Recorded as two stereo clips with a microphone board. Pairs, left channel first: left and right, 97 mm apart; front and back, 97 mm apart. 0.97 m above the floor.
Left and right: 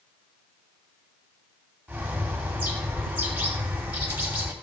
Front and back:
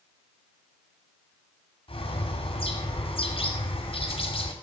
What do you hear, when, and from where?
1.9 s a bird: 15° right, 2 m